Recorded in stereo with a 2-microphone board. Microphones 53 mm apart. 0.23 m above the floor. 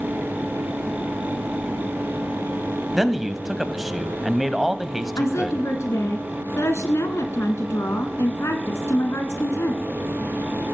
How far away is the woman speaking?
About 2 m.